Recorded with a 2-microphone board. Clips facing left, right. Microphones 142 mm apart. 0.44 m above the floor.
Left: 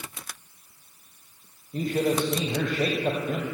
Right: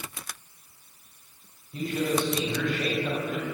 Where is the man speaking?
45° left (ahead or behind), 3 m.